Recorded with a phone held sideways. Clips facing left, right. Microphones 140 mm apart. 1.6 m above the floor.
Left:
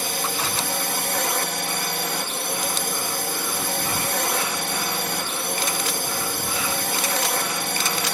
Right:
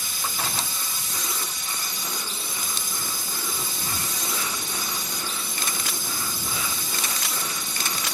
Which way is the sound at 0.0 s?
65° left (ahead or behind).